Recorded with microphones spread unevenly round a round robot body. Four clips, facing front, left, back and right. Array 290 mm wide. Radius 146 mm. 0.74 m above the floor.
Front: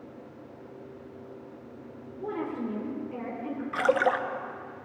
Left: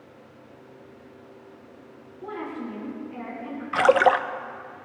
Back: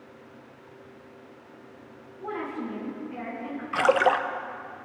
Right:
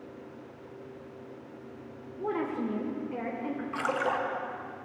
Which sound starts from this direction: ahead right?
A woman speaking, at 2.2 s.